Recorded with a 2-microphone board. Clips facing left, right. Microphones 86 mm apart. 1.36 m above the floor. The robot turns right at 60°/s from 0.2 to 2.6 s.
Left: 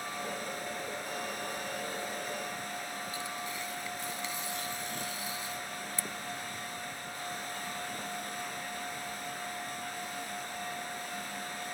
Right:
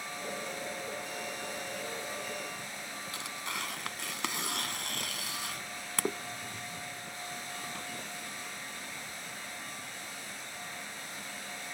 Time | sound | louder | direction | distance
3.1 | tearing paper | left 1 dB | 85° right | ?